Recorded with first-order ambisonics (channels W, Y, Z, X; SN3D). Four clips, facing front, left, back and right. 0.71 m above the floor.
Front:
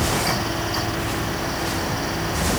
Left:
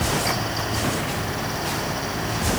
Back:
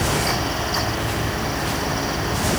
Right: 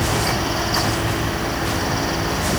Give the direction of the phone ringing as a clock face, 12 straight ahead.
No phone ringing in this recording.